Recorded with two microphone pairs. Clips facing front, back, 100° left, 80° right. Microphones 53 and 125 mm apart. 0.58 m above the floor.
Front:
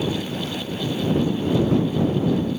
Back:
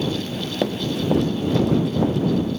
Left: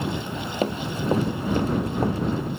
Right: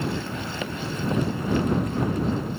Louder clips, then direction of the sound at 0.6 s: Back 4 dB, left 5 dB; 155° left.